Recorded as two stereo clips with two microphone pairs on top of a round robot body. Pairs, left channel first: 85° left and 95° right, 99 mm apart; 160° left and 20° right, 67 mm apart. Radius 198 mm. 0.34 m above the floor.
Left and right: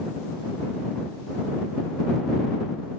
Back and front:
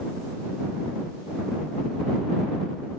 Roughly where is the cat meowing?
I don't hear a cat meowing.